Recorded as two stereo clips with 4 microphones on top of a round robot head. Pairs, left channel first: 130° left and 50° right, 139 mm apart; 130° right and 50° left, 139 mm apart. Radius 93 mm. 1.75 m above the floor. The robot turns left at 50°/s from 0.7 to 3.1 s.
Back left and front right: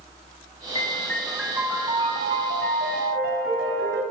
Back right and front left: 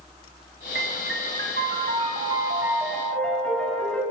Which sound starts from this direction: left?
A piano, at 0.8 s.